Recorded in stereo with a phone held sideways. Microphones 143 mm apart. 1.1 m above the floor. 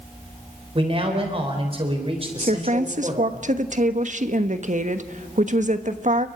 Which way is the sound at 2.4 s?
60° right (ahead or behind).